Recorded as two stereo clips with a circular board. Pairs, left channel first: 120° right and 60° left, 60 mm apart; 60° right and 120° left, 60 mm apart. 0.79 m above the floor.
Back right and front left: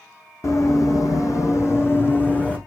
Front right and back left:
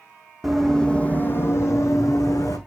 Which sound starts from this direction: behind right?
Running footsteps, at 0.4 s.